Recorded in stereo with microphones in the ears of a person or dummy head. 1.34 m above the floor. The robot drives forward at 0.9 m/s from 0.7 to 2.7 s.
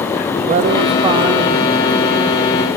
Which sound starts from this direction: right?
A man speaking, at 0.4 s.